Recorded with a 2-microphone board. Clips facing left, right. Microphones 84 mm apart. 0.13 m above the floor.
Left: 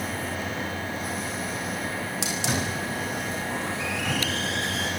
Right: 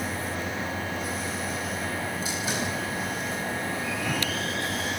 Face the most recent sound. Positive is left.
turn(degrees=75)  # may be behind; listen again after turning